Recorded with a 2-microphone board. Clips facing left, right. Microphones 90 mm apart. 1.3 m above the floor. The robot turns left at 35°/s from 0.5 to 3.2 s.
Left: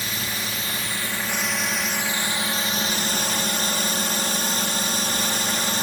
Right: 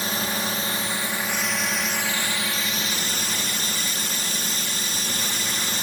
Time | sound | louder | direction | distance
0.0 | a drone | right 4 dB | 140° right | ?